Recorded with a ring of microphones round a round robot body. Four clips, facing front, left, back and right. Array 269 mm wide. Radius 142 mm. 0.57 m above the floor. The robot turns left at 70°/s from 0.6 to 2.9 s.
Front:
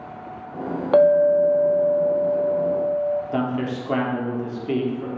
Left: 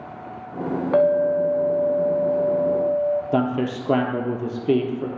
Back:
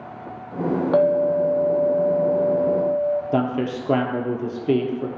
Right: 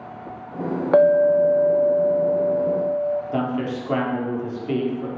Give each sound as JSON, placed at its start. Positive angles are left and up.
{"t": 0.9, "sound": "a clink", "azimuth_deg": -60, "distance_m": 0.5}
{"t": 3.3, "sound": "a man speaking", "azimuth_deg": 130, "distance_m": 1.2}